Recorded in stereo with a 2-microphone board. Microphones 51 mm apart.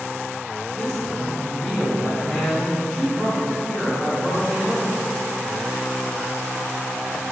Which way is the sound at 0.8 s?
10° left (ahead or behind).